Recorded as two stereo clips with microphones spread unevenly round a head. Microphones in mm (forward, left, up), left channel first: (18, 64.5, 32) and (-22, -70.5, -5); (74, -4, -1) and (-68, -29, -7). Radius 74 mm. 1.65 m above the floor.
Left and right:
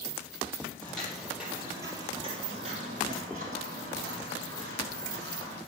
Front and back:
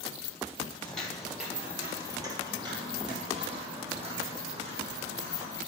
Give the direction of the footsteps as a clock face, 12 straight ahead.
10 o'clock.